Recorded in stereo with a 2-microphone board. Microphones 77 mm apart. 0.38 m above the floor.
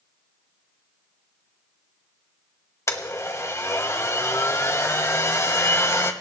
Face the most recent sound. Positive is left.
turn(degrees=40)  # may be behind; listen again after turning